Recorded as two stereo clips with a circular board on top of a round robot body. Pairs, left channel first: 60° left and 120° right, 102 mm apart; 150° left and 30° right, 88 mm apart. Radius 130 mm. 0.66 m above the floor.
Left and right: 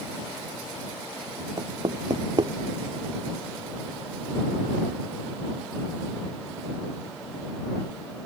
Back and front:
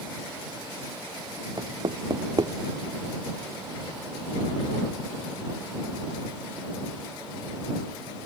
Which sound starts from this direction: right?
Knocking, at 1.6 s.